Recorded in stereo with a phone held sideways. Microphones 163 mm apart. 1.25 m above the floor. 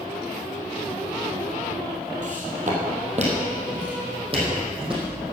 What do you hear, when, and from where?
2.2 s footsteps: 55° right (ahead or behind), 2.5 m; by 5.1 s 30° right (ahead or behind), 4 m